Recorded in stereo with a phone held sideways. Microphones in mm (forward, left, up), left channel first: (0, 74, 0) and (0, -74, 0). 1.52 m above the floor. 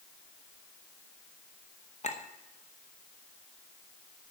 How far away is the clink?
About 1.0 m.